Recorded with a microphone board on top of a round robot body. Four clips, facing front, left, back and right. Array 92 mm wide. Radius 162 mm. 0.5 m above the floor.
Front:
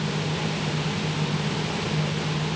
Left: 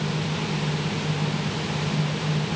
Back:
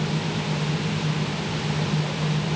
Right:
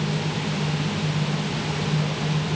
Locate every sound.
Only background noise.